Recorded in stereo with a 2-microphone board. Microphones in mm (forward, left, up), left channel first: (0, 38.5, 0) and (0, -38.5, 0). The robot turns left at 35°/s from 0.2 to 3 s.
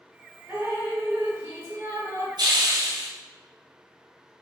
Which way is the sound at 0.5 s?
40° right.